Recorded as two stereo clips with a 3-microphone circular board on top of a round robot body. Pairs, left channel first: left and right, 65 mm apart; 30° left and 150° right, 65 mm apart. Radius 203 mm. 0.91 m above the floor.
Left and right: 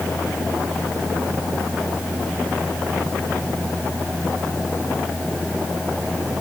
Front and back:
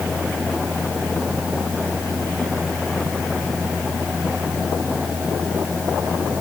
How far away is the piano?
I don't hear a piano.